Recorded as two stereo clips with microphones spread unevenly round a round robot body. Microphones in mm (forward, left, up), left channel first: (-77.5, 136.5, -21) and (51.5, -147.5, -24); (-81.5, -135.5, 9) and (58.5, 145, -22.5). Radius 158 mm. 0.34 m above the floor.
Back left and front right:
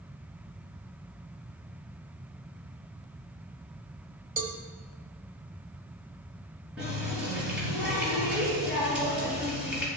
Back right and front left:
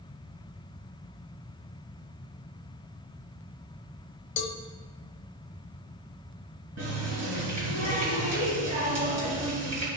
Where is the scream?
No scream in this recording.